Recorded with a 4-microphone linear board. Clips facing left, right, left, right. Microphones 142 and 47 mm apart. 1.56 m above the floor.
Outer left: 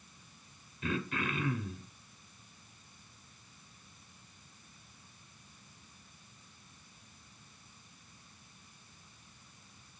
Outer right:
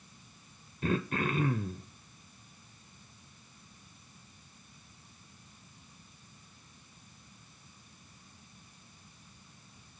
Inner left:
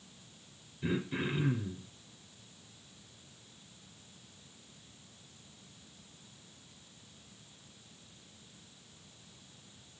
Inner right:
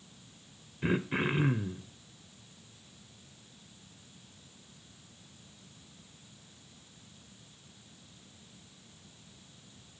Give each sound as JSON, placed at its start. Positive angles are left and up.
{"t": 0.8, "sound": "throat clearing", "side_deg": -45, "distance_m": 0.5}